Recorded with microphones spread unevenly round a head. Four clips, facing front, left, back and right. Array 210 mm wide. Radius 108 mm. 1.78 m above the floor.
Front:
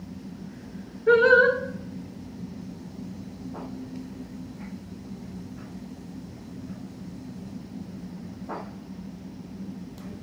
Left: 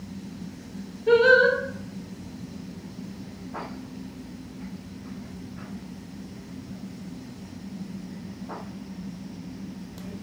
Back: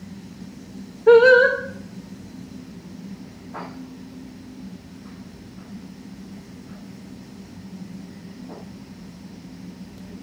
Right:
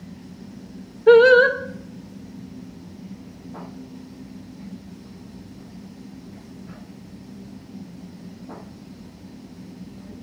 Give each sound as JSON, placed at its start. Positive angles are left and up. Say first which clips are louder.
{"t": 1.1, "sound": "singing", "louder": "right 6 dB, back 6 dB", "azimuth_deg": -125, "distance_m": 2.0}